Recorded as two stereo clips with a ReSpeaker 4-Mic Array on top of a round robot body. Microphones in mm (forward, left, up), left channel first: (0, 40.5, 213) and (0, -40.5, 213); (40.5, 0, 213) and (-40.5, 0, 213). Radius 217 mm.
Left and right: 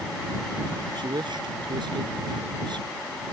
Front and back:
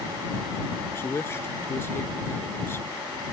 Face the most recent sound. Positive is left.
turn(degrees=-60)